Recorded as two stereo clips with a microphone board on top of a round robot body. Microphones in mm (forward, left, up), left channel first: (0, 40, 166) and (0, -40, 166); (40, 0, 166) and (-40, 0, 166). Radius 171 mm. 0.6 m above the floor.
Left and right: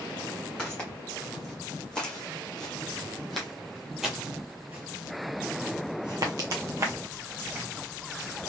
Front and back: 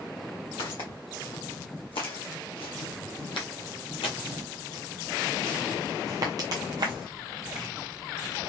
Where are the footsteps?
15° left, 3 m; by 7.7 s 150° right, 1.5 m.